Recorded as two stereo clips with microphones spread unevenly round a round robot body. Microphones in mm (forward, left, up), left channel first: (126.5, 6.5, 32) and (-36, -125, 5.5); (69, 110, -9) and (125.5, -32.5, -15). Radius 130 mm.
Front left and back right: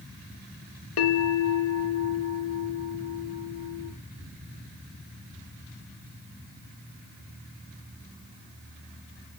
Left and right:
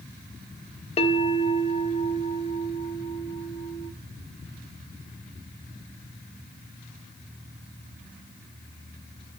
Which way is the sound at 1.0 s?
65° left.